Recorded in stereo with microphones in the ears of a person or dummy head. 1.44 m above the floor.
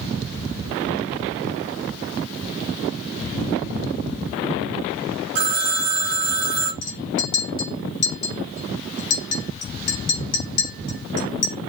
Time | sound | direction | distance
5.3 | a phone ringing | 50° right (ahead or behind) | 0.6 m
6.8 | a clink | 60° left (ahead or behind) | 1.5 m